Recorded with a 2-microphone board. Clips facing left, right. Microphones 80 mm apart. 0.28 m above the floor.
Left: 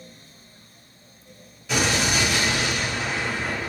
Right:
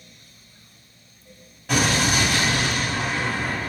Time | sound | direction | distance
1.7 | an explosion | 55° right (ahead or behind) | 1.6 m